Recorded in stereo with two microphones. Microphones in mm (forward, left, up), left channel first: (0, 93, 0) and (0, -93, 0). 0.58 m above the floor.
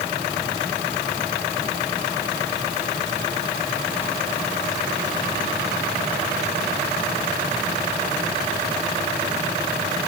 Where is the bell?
I don't hear a bell.